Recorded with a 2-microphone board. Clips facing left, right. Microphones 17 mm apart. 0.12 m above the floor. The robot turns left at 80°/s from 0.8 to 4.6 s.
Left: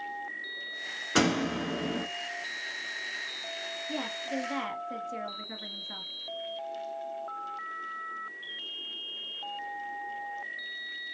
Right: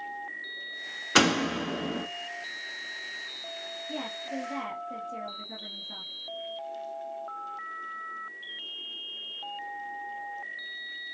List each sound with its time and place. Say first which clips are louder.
1.1 s a door slam: right 4 dB; 120° right, 1.0 m; by 2.0 s 170° left, 1.0 m
3.9 s a woman speaking: left 1 dB; 160° left, 1.7 m; by 6.1 s 100° left, 1.7 m